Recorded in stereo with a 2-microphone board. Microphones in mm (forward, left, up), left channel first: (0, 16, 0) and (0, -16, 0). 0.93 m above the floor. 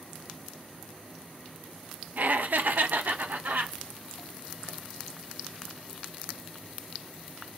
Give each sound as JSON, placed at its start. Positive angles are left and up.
{"t": 2.2, "sound": "laughter", "side_deg": -55, "distance_m": 0.5}